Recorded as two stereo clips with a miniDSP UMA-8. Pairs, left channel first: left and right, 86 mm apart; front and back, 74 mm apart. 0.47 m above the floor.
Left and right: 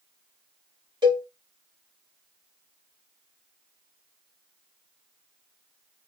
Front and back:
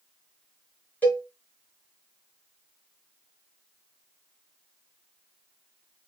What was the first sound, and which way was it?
A cowbell, 65° right.